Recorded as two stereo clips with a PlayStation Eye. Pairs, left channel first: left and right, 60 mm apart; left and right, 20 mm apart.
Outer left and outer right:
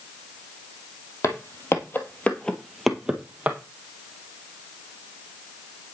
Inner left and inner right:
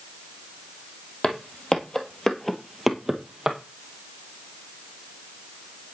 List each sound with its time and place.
1.2 s footsteps: 55° left (ahead or behind), 2.0 m; by 3.6 s 25° right (ahead or behind), 1.9 m